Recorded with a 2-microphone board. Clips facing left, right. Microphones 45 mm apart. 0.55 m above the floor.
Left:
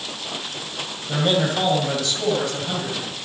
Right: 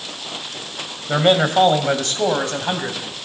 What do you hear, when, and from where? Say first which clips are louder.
1.1 s a man speaking: right 5 dB; 45° right (ahead or behind), 2.5 m; by 3.0 s 55° right (ahead or behind), 3.5 m